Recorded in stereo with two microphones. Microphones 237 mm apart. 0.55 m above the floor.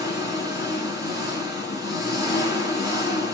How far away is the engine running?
About 3 m.